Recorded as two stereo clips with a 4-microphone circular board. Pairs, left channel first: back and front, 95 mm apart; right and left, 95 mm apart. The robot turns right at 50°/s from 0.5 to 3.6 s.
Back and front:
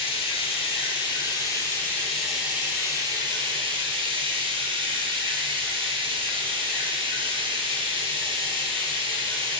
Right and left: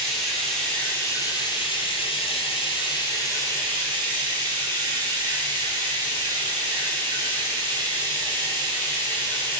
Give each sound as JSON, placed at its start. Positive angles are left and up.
{"t": 0.0, "sound": "running water", "azimuth_deg": -175, "distance_m": 0.9}